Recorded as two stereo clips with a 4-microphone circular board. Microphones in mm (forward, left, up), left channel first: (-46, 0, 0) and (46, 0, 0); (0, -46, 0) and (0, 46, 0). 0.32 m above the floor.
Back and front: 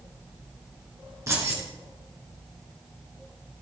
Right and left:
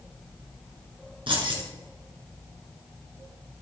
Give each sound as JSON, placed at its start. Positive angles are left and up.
{"t": 1.3, "sound": "keys jangling", "azimuth_deg": 60, "distance_m": 2.5}